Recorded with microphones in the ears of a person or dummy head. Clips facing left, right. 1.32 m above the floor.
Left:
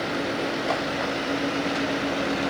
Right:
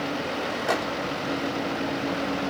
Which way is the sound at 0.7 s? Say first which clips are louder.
Right 4 dB; 15° right (ahead or behind).